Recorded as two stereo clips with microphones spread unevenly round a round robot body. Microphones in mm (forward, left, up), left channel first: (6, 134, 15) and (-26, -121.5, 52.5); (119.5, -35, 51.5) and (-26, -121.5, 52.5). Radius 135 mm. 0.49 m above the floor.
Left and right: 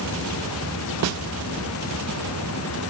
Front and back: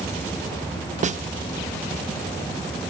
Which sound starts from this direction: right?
A snare drum, at 1.0 s.